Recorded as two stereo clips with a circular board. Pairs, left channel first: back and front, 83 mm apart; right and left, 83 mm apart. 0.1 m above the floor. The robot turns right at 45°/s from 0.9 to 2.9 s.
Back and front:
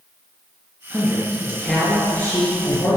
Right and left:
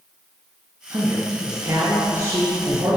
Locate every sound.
0.9 s a man speaking: 65° left, 2 m; by 3.0 s 155° left, 2 m